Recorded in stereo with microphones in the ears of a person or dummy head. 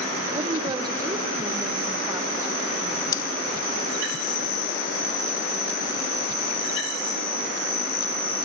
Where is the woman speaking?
25° right (ahead or behind), 1.4 m; by 3.0 s 20° right (ahead or behind), 3 m.